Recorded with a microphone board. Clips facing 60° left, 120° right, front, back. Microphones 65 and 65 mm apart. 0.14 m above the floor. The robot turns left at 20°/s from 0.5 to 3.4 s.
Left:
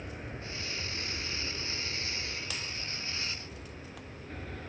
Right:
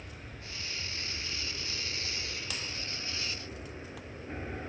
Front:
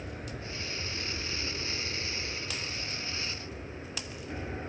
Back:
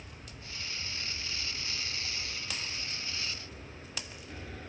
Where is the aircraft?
Straight ahead; by 4.7 s 55° right.